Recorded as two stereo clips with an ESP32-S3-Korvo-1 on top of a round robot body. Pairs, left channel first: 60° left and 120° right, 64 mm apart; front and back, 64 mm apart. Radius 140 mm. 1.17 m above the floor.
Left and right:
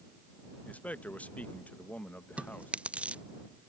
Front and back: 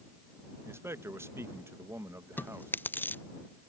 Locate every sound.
0.7 s a man speaking: 130° left
2.4 s chewing: 55° right